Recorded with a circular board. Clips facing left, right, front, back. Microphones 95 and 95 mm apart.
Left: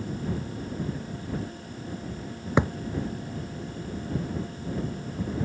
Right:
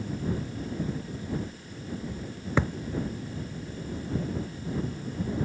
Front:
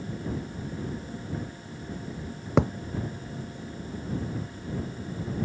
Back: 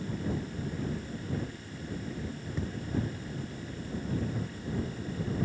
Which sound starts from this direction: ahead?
A thud, at 2.6 s.